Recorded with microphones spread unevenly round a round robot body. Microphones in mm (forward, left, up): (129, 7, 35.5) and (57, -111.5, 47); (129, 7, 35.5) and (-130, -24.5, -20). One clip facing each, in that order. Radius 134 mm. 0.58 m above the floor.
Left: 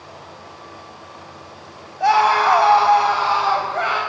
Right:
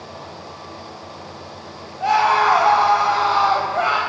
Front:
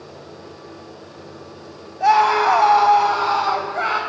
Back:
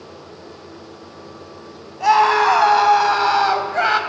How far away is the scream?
About 4 m.